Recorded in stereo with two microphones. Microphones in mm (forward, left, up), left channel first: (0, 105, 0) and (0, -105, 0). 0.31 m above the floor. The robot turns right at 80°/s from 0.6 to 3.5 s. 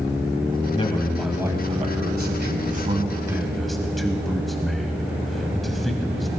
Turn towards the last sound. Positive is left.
turn(degrees=0)